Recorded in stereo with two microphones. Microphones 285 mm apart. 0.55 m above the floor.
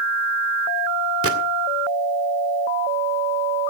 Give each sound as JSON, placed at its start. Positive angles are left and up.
{"t": 1.2, "sound": "a gunshot", "side_deg": -55, "distance_m": 2.0}